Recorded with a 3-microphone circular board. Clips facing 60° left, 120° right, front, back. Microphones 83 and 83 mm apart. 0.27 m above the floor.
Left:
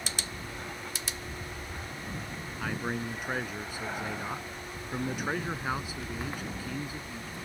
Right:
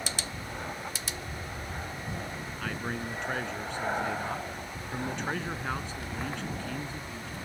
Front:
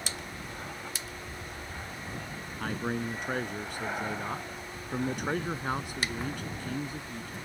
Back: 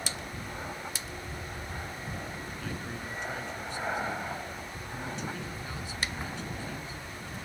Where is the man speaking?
20° right.